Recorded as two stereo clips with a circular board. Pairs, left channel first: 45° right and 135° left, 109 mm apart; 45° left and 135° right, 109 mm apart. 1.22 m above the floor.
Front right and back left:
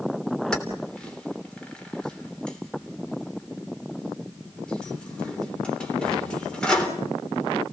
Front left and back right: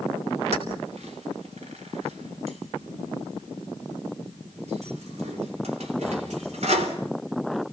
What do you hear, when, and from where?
0.5 s keys jangling: 125° right, 3 m